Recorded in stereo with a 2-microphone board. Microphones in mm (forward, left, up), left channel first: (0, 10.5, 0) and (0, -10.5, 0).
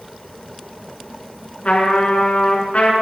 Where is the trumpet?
65° left (ahead or behind), 9.5 m.